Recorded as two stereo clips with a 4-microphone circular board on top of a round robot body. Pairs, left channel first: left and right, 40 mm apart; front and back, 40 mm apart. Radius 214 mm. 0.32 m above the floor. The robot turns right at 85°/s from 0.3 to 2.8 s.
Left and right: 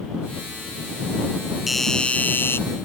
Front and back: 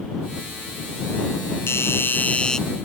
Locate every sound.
1.7 s a doorbell: straight ahead; by 2.6 s 75° left